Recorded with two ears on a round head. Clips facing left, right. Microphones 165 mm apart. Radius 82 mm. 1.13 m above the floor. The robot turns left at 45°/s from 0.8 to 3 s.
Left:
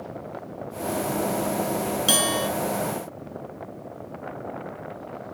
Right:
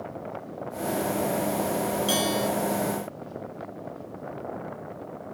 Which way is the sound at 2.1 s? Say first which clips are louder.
Left 1 dB; 75° left (ahead or behind).